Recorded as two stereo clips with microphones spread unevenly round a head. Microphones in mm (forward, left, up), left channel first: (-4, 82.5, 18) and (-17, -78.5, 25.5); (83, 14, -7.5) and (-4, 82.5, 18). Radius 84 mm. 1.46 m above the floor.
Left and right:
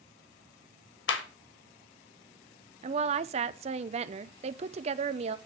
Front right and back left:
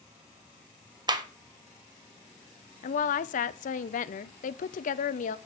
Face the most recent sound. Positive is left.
turn(degrees=-40)